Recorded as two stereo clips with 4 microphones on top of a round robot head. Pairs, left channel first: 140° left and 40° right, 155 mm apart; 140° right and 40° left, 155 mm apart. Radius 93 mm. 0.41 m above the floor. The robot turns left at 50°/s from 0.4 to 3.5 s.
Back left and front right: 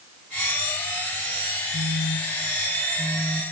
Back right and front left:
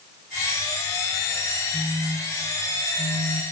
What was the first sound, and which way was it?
A phone buzzing, 140° left.